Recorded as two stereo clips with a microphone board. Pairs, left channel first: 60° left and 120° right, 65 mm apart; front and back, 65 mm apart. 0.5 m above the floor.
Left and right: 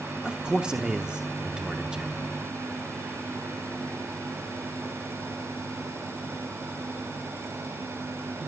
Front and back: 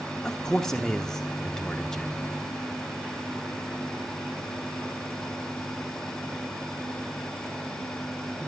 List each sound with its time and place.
0.2 s a man speaking: 70° right, 1.0 m